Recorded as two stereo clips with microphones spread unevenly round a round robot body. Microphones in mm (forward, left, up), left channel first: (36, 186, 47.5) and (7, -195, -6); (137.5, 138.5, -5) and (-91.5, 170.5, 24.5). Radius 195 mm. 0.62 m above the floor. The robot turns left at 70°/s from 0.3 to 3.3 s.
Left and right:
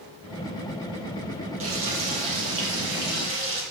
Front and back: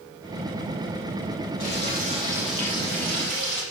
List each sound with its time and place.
1.6 s frying: 35° right, 7.5 m; by 3.6 s 155° right, 7.5 m